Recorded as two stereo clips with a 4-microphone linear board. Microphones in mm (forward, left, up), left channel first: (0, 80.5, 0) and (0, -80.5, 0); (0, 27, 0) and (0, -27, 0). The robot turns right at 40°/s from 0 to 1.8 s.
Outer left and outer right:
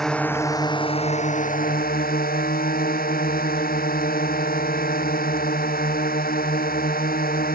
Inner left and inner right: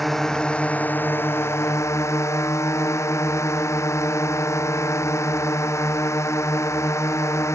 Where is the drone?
Straight ahead; by 7.6 s 75° left.